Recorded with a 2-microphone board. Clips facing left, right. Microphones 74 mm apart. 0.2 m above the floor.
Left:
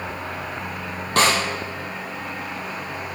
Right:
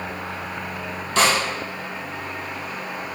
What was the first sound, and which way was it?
A snare drum, 50° left (ahead or behind).